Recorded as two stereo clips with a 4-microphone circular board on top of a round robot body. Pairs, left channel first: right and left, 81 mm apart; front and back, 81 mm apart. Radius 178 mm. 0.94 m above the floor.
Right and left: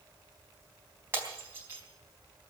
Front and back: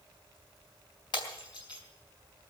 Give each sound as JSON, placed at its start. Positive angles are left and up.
{"t": 1.1, "sound": "breaking glass", "azimuth_deg": 30, "distance_m": 4.0}